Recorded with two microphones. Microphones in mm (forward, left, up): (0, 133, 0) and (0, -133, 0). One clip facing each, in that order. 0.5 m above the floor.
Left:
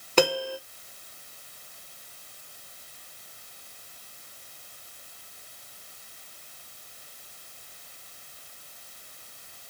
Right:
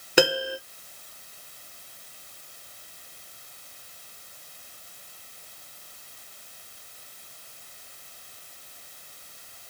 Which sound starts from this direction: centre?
A piano, at 0.2 s.